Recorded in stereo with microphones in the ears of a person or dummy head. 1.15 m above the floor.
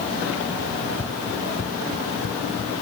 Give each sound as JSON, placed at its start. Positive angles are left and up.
{"t": 0.7, "sound": "running footsteps", "side_deg": 5}